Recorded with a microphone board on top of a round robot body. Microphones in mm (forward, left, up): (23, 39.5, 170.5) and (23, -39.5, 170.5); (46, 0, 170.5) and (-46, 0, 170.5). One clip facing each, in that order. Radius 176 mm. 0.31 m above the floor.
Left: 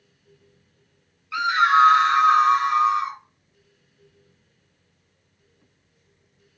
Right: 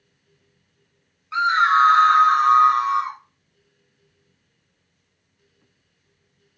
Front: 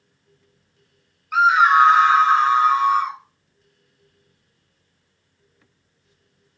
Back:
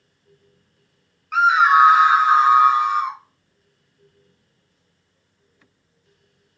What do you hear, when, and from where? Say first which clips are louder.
1.3 s a scream: right 1 dB, even; 85° right, 1.1 m; by 3.2 s 110° right, 1.7 m